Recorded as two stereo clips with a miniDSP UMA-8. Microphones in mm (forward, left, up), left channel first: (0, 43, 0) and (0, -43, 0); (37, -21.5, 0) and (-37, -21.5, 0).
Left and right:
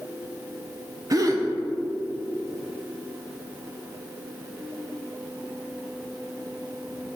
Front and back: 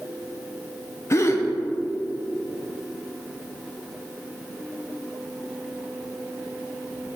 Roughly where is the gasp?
Ahead right.